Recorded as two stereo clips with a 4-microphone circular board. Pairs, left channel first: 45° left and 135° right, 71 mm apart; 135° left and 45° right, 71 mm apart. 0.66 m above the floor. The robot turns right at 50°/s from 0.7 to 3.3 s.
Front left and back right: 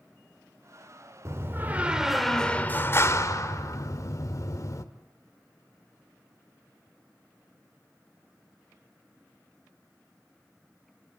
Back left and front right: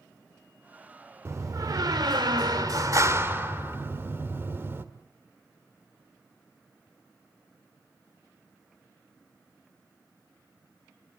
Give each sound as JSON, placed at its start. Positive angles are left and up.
{"t": 1.2, "sound": "a door slam", "azimuth_deg": -90, "distance_m": 1.6}